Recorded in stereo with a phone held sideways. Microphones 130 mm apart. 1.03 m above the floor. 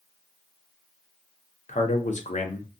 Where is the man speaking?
70° left (ahead or behind), 0.6 m.